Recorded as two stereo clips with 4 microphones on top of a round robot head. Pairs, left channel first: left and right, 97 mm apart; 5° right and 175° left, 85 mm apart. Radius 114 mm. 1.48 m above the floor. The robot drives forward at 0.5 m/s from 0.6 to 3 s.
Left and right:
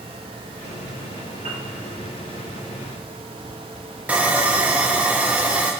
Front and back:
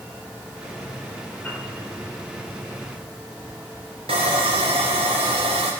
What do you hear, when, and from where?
1.4 s a piano: 85° right, 2.5 m
4.1 s sawing: 160° right, 0.6 m